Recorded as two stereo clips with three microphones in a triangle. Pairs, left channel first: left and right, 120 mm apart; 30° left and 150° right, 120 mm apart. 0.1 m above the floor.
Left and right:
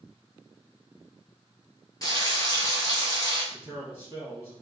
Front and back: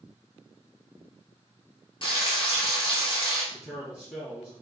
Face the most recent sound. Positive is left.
turn(degrees=-50)